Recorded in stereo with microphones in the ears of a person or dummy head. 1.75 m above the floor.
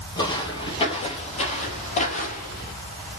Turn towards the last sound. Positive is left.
turn(degrees=45)  # may be behind; listen again after turning